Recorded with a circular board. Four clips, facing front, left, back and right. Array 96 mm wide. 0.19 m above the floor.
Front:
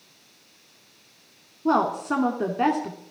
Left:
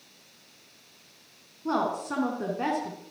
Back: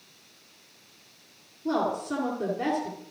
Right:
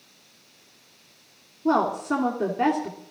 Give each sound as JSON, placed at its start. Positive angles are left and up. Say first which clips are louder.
{"t": 1.6, "sound": "a woman speaking", "louder": "right 6 dB, front 5 dB", "azimuth_deg": -20, "distance_m": 1.7}